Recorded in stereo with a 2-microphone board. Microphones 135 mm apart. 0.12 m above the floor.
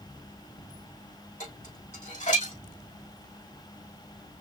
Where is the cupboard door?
No cupboard door in this recording.